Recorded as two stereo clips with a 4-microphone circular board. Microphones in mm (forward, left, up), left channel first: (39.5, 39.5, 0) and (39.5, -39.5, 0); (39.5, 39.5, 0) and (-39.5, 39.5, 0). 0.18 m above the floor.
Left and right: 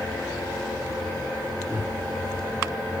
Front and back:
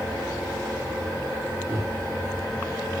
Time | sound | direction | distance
1.7 | a microwave | 160° right | 4.5 m